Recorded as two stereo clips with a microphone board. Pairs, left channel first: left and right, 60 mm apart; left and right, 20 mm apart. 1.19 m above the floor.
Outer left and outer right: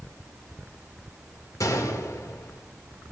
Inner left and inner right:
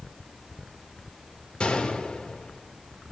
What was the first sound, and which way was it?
A gunshot, 55° left (ahead or behind).